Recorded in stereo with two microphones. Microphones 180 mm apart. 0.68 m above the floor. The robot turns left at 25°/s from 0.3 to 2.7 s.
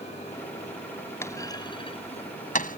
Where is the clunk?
15° left (ahead or behind); by 2.8 s 50° left (ahead or behind).